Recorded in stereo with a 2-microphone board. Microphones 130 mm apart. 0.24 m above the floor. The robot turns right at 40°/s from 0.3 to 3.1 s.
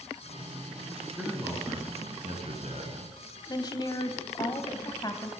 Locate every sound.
1.2 s a man speaking: 165° right, 3 m; by 3.0 s 90° right, 3 m
3.5 s a woman speaking: 35° left (ahead or behind), 1.3 m